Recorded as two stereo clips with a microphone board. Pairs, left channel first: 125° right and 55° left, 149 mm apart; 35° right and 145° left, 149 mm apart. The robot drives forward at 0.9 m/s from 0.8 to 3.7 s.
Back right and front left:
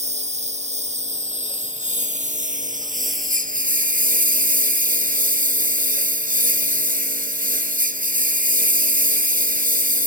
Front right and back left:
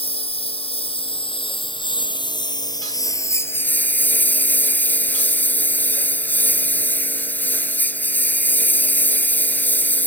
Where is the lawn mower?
15° left; by 10.1 s 45° left.